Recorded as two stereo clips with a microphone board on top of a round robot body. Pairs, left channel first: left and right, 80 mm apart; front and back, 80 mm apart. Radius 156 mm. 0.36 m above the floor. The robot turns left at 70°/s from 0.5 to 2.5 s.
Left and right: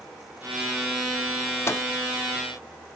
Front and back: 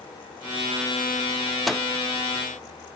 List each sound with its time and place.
1.7 s a microwave: 90° left, 0.7 m; by 1.9 s 75° left, 0.7 m